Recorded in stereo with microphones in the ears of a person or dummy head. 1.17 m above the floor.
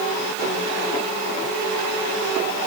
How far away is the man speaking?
No man speaking in this recording.